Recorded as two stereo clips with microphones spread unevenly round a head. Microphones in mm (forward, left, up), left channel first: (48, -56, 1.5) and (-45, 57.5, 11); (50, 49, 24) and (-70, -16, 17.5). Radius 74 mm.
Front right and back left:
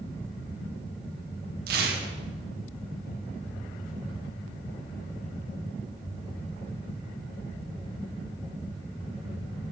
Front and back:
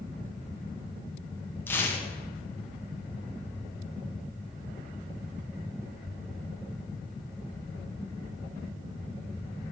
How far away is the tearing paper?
About 1.9 m.